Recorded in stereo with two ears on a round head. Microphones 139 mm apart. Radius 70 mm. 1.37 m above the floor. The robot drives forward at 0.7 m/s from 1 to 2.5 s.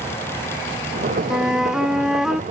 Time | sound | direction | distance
1.3 | a flute | 5° right (ahead or behind) | ?